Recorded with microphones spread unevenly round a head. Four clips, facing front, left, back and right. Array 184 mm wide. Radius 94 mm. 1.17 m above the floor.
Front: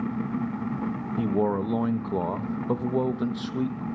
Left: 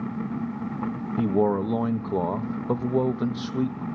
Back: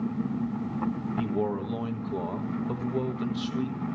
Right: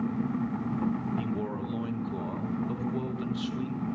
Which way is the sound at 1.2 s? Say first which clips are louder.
Left 10 dB, front 6 dB; 65° left.